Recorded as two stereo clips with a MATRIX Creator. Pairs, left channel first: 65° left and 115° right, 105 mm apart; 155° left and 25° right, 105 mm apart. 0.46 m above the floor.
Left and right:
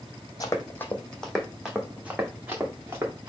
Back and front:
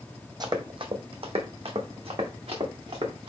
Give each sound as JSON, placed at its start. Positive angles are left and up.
{"t": 0.4, "sound": "running footsteps", "azimuth_deg": 20, "distance_m": 0.9}